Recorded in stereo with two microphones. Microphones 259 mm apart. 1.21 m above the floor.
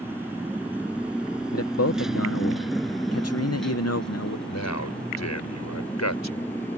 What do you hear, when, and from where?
0.0 s a motorcycle: 10° right (ahead or behind); by 6.8 s 10° left (ahead or behind)
1.5 s a man speaking: 70° left (ahead or behind)
4.5 s a man speaking: 85° left